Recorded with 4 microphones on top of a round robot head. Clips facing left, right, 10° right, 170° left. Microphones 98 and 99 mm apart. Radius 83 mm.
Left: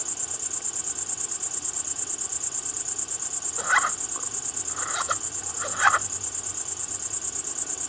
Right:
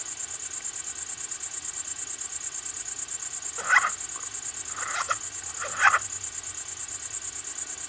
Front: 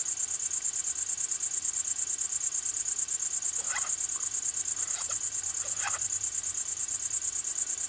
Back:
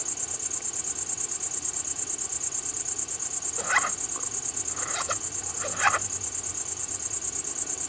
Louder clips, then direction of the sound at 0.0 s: Left 5 dB, back 10 dB; 140° left.